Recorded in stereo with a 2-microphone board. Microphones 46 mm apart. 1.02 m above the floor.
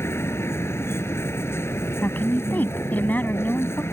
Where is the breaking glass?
No breaking glass in this recording.